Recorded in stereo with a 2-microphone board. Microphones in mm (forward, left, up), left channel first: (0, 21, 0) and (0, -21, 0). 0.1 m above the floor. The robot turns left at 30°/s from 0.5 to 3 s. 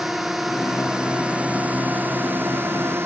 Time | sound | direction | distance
0.0 | a drone | 5° right | ?